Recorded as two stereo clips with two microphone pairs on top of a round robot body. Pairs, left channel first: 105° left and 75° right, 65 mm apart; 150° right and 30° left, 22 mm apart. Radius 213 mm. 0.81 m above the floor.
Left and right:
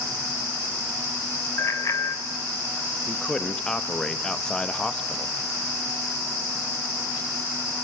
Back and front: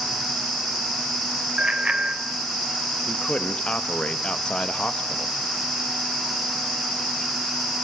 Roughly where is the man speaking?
Behind.